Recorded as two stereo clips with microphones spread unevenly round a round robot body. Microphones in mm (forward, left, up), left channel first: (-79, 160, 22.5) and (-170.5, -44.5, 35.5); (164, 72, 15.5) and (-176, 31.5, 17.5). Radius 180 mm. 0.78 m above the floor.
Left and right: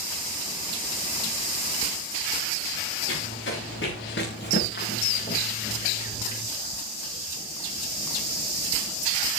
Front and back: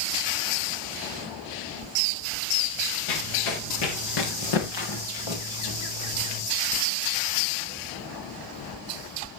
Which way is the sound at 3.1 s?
15° left.